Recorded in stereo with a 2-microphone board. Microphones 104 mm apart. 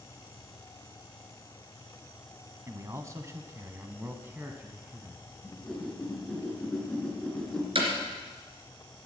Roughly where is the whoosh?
Centre.